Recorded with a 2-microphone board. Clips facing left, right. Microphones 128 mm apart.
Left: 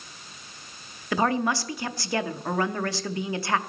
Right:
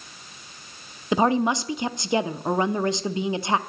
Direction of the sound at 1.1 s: 20° right (ahead or behind).